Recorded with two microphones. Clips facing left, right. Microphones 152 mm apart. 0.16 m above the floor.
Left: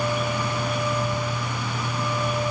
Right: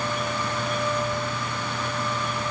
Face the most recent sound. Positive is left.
No sound to turn to.